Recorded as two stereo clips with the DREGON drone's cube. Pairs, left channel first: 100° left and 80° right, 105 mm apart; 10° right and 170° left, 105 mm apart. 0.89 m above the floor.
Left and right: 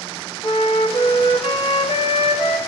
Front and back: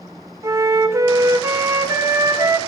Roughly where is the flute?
Behind left.